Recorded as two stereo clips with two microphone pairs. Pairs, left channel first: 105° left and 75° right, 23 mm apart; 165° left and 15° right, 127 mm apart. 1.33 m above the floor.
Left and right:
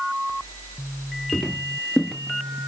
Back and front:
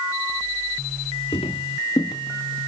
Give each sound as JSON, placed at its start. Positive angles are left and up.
{"t": 1.3, "sound": "footsteps", "azimuth_deg": 150, "distance_m": 1.8}